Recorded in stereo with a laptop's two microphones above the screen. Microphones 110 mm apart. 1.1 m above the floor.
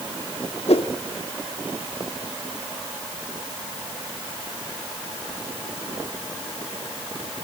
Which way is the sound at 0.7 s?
65° left (ahead or behind).